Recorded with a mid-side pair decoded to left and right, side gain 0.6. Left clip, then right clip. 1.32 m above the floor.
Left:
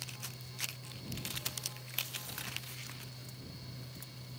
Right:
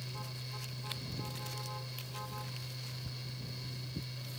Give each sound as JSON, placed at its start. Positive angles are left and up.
{"t": 0.0, "sound": "a fan", "azimuth_deg": -35}